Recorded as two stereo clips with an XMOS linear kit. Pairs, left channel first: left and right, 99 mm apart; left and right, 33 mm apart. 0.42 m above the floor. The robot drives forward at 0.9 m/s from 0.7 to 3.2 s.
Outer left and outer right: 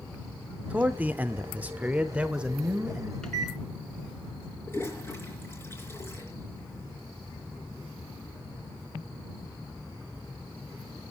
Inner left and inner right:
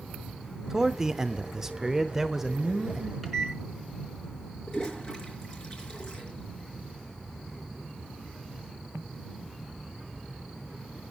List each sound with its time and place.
0.7 s a man speaking: 15° right (ahead or behind), 1.0 m; by 3.1 s 10° right (ahead or behind), 2.0 m
3.2 s a microwave: 5° left (ahead or behind), 4 m
4.7 s a toilet flushing: 25° left (ahead or behind), 4.5 m